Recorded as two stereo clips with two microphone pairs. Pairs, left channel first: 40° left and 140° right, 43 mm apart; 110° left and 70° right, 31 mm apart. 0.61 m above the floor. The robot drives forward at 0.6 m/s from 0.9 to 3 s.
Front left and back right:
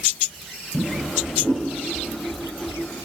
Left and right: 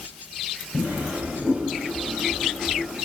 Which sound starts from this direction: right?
A drawer, at 0.7 s.